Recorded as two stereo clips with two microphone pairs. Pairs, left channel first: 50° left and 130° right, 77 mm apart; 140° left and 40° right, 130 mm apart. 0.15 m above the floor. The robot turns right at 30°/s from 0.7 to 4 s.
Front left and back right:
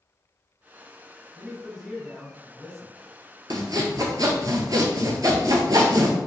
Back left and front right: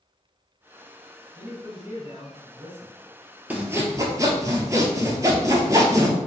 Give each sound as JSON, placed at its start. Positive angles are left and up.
{"t": 1.4, "sound": "a man speaking", "azimuth_deg": -70, "distance_m": 1.0}
{"t": 3.5, "sound": "sawing", "azimuth_deg": -115, "distance_m": 0.8}